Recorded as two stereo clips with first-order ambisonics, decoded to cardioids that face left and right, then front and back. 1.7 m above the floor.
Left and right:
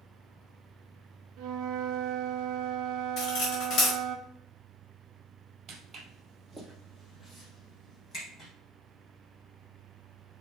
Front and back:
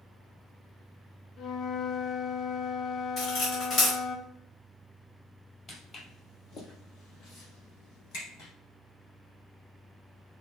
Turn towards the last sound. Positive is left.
turn(degrees=25)